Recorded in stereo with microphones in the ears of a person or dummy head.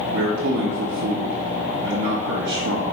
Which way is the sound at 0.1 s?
55° right (ahead or behind).